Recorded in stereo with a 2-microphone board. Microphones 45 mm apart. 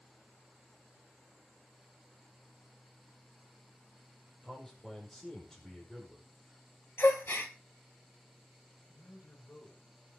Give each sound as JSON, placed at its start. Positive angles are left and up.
{"t": 4.4, "sound": "a man speaking", "side_deg": 10, "distance_m": 5.5}
{"t": 7.0, "sound": "a gasp", "side_deg": 65, "distance_m": 1.8}
{"t": 8.9, "sound": "a man speaking", "side_deg": 50, "distance_m": 7.5}